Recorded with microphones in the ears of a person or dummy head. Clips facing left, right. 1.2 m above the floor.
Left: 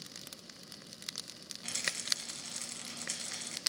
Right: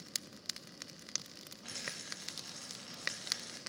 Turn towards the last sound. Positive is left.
turn(degrees=45)  # may be behind; listen again after turning